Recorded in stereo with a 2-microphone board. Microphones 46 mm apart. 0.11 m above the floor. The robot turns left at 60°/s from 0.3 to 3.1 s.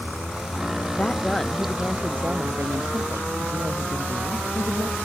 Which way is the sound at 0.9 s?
35° left.